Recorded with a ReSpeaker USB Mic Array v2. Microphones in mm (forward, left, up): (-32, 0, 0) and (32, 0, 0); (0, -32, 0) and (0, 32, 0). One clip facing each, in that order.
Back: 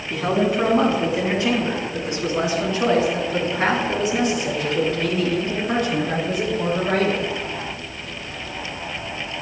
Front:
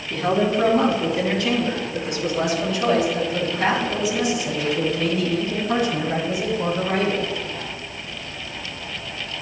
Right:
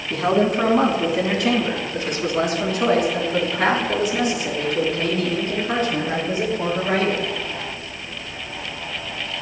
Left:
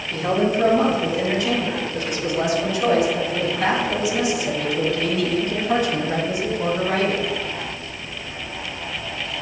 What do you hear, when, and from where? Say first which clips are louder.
0.1 s a man speaking: even, right 2 dB; 100° right, 3 m; by 7.3 s 145° right, 5 m